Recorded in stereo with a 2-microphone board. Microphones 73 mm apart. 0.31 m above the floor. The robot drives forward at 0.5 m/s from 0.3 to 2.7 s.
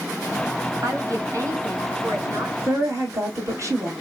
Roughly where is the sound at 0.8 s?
Right.